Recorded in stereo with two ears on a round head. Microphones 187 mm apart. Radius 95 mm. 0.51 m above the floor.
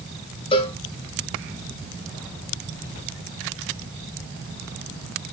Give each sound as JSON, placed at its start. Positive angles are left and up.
{"t": 0.5, "sound": "a cowbell", "side_deg": 25, "distance_m": 2.0}